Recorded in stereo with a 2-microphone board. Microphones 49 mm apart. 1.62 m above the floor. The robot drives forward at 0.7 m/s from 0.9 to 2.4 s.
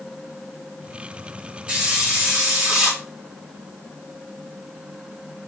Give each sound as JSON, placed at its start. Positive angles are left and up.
{"t": 1.7, "sound": "a hiss", "side_deg": -20, "distance_m": 3.0}